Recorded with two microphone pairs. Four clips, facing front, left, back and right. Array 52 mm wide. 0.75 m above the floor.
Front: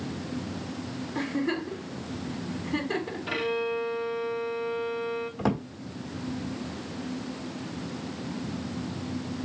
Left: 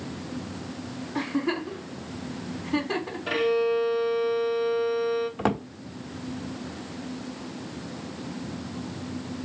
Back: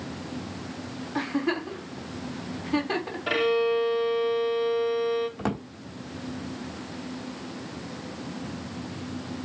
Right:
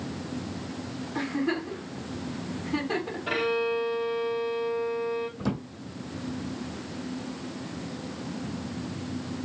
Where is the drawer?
90° left, 1.0 m.